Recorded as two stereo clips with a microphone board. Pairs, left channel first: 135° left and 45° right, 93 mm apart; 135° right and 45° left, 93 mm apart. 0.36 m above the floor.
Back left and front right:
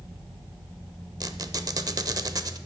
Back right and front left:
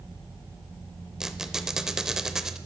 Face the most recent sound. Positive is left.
turn(degrees=-35)